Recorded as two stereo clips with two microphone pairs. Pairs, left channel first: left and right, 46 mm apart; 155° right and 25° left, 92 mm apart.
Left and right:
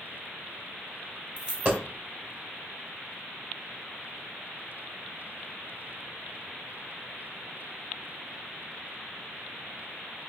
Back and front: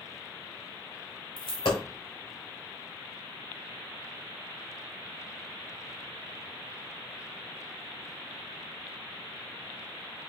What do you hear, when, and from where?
1.4 s a dropped coin: 145° right, 1.3 m